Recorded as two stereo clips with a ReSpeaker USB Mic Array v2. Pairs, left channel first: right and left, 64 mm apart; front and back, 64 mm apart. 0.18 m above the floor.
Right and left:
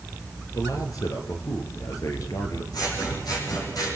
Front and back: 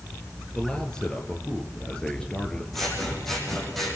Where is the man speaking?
75° right, 3 m.